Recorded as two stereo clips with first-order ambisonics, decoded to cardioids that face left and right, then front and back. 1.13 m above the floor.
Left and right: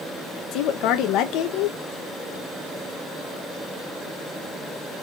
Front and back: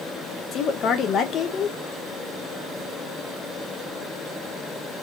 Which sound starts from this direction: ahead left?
A woman speaking, at 0.5 s.